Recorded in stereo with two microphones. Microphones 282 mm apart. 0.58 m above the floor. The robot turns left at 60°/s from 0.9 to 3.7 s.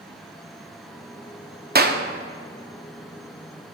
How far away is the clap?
About 0.5 m.